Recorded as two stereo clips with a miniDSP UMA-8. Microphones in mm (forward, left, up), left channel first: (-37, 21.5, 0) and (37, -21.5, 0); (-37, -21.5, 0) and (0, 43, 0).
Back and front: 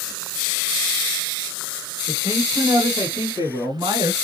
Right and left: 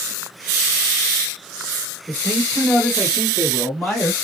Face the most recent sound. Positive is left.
turn(degrees=-50)